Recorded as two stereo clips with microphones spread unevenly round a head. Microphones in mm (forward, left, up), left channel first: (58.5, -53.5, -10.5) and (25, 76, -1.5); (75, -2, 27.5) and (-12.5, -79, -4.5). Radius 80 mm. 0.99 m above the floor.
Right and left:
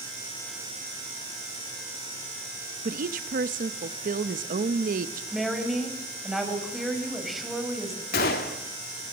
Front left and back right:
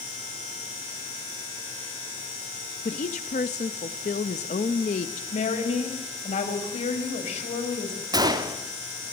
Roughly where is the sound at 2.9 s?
Left.